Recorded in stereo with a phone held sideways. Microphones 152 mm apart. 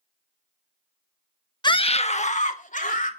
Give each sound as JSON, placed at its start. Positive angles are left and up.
{"t": 1.6, "sound": "a scream", "side_deg": 25, "distance_m": 0.7}